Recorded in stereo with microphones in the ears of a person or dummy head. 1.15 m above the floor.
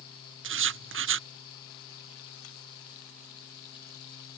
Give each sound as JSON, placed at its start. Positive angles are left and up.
{"t": 0.4, "sound": "writing", "side_deg": -55}